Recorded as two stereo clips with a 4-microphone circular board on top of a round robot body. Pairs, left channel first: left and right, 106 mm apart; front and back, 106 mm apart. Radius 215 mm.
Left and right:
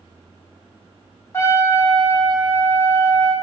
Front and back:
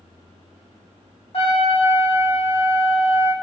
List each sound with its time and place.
1.3 s a trumpet: 25° left, 3 m